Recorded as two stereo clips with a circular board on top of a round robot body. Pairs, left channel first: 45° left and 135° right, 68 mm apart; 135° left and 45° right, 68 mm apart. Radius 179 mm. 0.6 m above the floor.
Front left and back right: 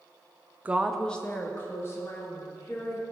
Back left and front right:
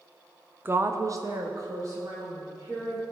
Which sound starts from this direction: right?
A woman speaking, at 0.7 s.